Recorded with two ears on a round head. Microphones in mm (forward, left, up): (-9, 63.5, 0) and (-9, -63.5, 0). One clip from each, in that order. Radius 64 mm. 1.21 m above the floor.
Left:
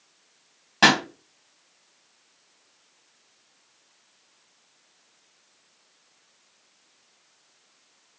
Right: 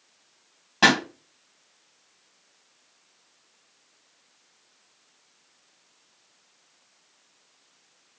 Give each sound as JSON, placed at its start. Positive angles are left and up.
{"t": 0.8, "sound": "a pop", "side_deg": 15, "distance_m": 2.5}